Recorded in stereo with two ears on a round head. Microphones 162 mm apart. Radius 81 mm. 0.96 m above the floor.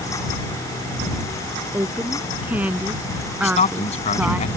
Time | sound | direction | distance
1.7 | a woman speaking | 10° right (ahead or behind) | ?
3.4 | a man speaking | 40° left (ahead or behind) | ?